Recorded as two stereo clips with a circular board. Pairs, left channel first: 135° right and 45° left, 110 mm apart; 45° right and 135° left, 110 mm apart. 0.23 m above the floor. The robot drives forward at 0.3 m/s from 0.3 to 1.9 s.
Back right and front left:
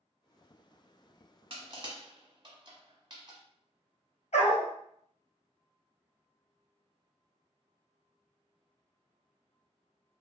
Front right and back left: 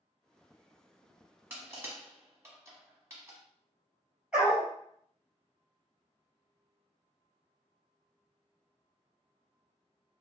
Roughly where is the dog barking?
Behind right.